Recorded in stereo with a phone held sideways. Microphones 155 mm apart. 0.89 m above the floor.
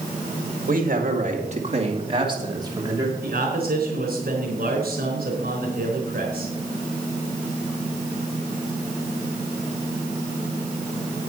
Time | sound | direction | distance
0.7 | a man speaking | 60° right (ahead or behind) | 1.8 m
3.2 | a man speaking | 70° right (ahead or behind) | 3.5 m